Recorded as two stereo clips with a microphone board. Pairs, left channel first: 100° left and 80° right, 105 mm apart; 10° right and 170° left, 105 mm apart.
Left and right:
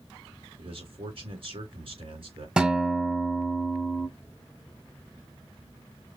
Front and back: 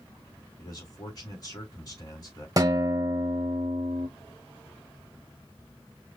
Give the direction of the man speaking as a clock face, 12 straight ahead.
2 o'clock.